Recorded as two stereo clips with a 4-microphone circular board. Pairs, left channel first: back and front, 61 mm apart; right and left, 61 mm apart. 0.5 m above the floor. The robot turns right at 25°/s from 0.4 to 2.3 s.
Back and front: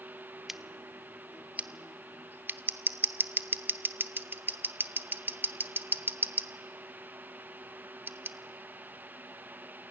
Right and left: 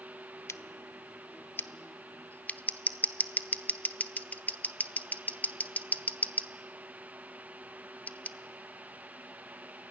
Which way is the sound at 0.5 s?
85° right.